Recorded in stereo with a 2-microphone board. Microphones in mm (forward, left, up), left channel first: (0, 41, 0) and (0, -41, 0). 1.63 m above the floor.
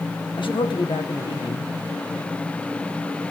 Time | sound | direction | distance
0.4 | a man speaking | 85° left | 1.4 m